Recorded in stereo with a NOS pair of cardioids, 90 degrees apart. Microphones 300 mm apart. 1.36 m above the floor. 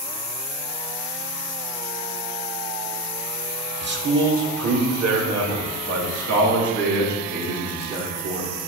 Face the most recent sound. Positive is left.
turn(degrees=-80)